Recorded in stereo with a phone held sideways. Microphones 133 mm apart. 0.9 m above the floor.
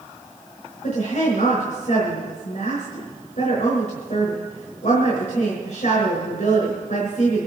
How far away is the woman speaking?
About 4.5 m.